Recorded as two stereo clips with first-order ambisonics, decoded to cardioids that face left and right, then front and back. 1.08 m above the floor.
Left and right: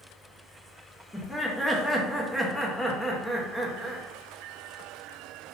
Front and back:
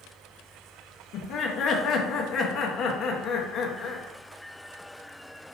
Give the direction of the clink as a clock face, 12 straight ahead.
I don't hear a clink.